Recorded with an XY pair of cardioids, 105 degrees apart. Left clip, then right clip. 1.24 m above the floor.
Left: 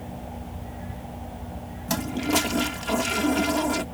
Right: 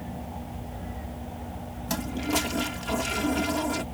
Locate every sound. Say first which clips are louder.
1.9 s a toilet flushing: left 4 dB; 25° left